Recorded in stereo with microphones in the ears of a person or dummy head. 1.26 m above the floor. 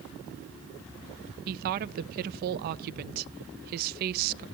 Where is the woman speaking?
50° right (ahead or behind), 0.6 m.